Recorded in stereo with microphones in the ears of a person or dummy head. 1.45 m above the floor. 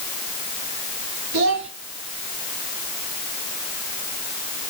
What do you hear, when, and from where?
1.3 s a child speaking: 65° right (ahead or behind), 1.3 m